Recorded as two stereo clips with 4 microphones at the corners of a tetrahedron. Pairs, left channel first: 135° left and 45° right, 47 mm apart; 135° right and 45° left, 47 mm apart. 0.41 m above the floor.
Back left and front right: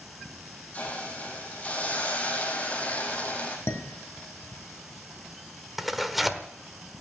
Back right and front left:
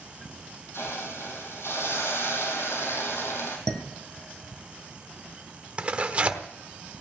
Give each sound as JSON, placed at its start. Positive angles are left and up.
{"t": 0.7, "sound": "a hiss", "azimuth_deg": -165, "distance_m": 3.0}
{"t": 3.7, "sound": "dishes clattering", "azimuth_deg": 155, "distance_m": 1.8}
{"t": 5.8, "sound": "tearing paper", "azimuth_deg": 40, "distance_m": 1.1}